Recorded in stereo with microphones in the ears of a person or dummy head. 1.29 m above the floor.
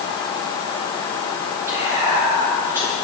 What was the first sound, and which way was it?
Whispering, 20° right (ahead or behind).